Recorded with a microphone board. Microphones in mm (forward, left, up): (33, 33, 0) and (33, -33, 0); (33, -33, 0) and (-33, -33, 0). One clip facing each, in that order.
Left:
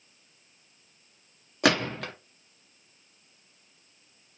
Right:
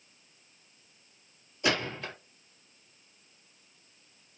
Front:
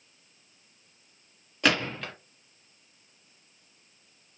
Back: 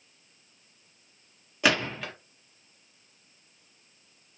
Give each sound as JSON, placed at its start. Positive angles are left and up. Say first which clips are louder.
{"t": 1.6, "sound": "a gunshot", "louder": "left 5 dB, back 1 dB", "azimuth_deg": 95, "distance_m": 0.9}